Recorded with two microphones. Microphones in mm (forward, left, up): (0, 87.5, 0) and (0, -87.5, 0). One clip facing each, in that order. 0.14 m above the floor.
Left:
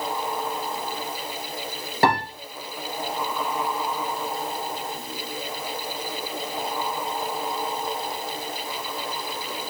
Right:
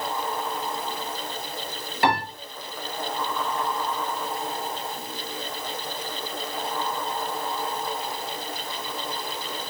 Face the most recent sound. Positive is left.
turn(degrees=40)  # may be behind; listen again after turning